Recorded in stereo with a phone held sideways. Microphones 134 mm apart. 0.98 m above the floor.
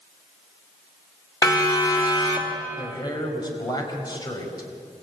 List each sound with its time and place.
1.4 s a siren: 25° left (ahead or behind), 3.5 m; by 2.6 s 40° left (ahead or behind), 2.5 m
2.8 s a man speaking: 30° left (ahead or behind), 4.5 m